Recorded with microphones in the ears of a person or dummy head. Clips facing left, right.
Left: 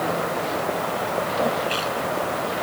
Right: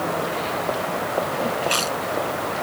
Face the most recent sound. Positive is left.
turn(degrees=-55)  # may be behind; listen again after turning